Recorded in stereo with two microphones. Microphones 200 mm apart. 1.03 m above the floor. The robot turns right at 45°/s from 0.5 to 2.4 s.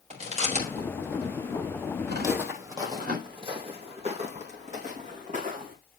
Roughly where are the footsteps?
Centre.